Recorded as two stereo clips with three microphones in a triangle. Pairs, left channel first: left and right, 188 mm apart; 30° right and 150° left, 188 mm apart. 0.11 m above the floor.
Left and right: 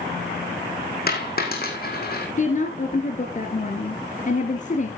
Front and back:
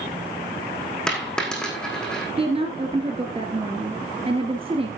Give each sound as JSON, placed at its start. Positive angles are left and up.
{"t": 1.1, "sound": "a dropped coin", "azimuth_deg": 55, "distance_m": 3.5}
{"t": 2.4, "sound": "a woman speaking", "azimuth_deg": 105, "distance_m": 1.6}